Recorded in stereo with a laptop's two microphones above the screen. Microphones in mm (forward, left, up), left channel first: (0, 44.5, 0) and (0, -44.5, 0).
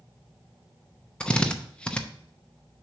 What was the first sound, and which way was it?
A drill, 10° left (ahead or behind).